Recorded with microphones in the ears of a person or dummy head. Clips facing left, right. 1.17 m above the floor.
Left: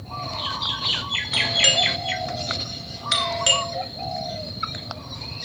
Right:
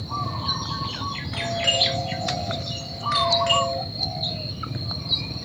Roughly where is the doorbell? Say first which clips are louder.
Right 1 dB; left.